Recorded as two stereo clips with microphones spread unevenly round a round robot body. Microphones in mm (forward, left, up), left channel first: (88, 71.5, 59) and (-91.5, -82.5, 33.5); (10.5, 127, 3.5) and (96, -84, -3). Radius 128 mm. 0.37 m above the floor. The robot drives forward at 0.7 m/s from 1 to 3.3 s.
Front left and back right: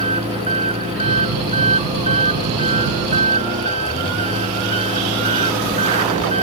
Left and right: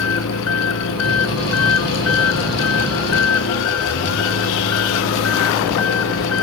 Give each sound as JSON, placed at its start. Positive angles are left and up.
{"t": 0.0, "sound": "an engine running", "azimuth_deg": 155}